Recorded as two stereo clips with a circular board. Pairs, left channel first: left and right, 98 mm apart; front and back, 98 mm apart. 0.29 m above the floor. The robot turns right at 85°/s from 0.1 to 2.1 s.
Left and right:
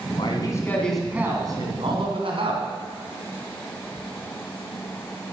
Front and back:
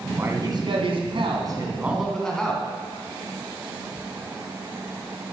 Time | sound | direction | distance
0.1 | a man speaking | 110° left | 2.5 m